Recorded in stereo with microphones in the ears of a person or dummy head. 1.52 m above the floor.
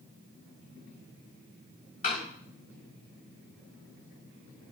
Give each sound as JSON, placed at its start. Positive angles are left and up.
{"t": 2.0, "sound": "a door slam", "side_deg": 40, "distance_m": 4.0}